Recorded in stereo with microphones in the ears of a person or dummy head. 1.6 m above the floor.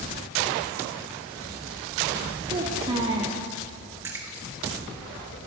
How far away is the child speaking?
About 0.6 m.